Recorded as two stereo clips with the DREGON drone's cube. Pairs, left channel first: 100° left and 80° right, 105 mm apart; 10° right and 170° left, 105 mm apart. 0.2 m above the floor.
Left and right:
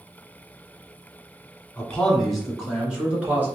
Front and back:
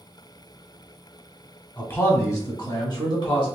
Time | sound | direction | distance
1.8 | a man speaking | 40° left | 1.3 m